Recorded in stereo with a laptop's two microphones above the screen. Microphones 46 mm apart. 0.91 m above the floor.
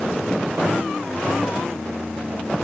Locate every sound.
Only background noise.